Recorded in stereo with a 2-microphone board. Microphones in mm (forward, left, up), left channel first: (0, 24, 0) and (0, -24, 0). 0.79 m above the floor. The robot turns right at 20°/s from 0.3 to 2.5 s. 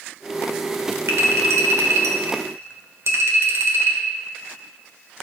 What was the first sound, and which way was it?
A clink, 80° right.